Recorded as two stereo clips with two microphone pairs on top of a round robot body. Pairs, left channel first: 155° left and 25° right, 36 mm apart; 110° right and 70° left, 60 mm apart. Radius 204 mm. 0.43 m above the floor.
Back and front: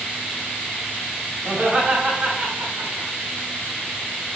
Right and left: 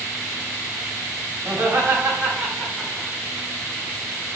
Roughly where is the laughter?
Ahead left.